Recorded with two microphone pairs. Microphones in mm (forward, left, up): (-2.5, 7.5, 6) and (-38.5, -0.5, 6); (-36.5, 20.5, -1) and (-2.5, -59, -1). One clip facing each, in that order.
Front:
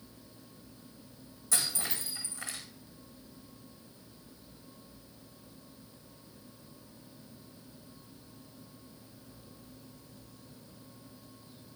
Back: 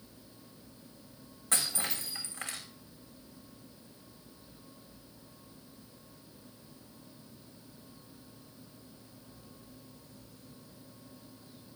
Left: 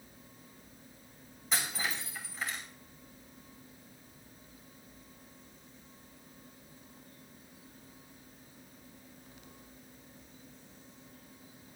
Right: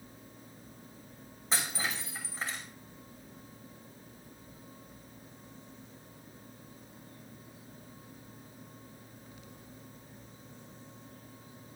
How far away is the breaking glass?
About 6.5 m.